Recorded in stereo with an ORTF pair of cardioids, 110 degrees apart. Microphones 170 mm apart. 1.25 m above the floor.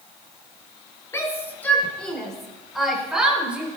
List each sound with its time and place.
1.1 s a shout: 15° left, 3.5 m; by 3.7 s 10° right, 5.5 m